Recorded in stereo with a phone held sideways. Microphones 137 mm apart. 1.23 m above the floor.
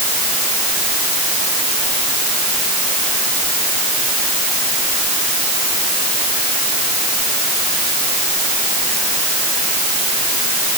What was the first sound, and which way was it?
Only background noise.